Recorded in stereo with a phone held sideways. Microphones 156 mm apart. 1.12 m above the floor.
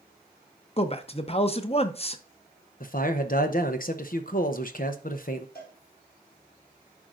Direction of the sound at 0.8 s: 40° left (ahead or behind).